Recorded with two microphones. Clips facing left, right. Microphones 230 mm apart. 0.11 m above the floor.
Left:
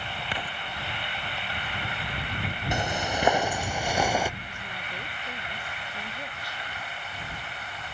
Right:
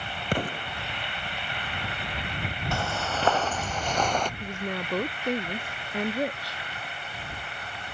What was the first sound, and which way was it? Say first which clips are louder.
An explosion: right 12 dB; 50° right (ahead or behind).